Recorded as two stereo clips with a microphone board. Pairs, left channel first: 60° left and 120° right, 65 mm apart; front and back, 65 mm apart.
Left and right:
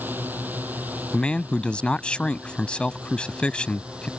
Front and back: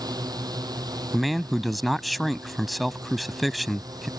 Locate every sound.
0.0 s a drone: straight behind; by 4.2 s 165° left
1.1 s a man speaking: 90° left